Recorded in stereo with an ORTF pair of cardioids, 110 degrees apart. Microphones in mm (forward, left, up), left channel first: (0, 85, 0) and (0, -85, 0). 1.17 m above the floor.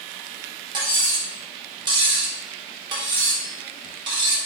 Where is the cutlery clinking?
30° right, 1.2 m.